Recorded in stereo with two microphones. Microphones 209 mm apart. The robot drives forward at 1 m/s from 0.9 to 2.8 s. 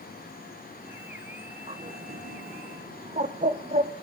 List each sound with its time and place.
1.7 s a bird: 30° right (ahead or behind), 0.8 m; by 3.9 s 35° right (ahead or behind), 0.7 m